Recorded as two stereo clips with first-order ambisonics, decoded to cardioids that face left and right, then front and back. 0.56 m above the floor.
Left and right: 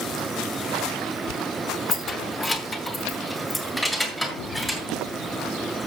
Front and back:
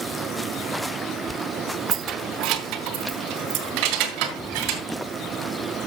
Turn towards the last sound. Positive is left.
turn(degrees=175)